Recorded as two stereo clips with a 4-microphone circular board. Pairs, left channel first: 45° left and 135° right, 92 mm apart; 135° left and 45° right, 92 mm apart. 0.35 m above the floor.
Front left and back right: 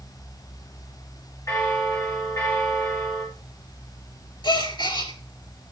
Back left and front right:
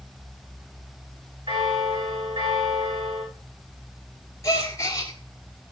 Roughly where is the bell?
Ahead.